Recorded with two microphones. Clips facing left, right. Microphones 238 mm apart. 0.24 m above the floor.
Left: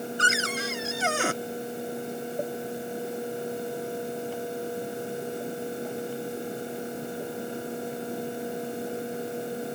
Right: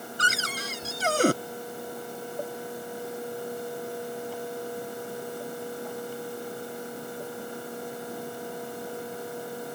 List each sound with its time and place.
0.2 s a cupboard door: 40° right (ahead or behind)